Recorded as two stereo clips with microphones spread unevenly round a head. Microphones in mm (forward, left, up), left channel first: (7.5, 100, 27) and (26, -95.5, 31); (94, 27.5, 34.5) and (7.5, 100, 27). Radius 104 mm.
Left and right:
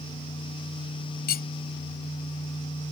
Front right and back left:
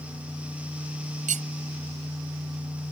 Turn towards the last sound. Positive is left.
turn(degrees=145)